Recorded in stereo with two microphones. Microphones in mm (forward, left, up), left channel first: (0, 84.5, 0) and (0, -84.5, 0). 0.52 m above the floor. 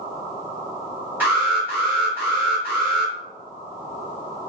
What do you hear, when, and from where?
1.2 s an alarm: 10° right (ahead or behind), 1.5 m